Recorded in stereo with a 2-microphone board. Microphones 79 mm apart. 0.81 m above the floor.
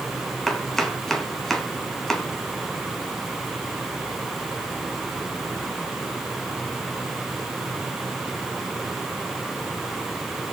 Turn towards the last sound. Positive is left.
turn(degrees=5)  # may be behind; listen again after turning